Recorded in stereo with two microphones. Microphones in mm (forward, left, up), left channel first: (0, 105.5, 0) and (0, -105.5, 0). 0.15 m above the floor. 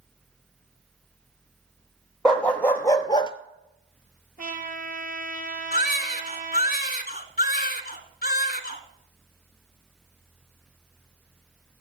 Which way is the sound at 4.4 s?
45° right (ahead or behind).